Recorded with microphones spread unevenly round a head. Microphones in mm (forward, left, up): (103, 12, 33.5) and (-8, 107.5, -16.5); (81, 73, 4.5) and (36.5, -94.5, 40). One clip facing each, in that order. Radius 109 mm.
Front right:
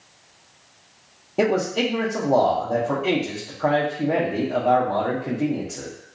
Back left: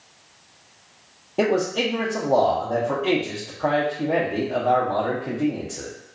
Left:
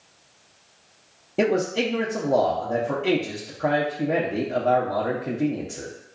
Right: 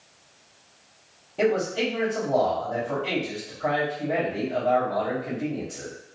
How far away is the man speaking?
About 0.7 m.